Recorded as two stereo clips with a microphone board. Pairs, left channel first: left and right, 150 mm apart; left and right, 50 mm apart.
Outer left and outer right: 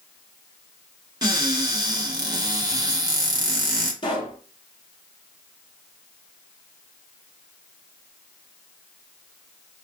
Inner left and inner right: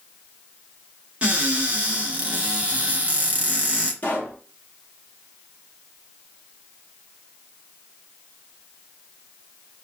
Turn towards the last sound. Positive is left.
turn(degrees=35)  # may be behind; listen again after turning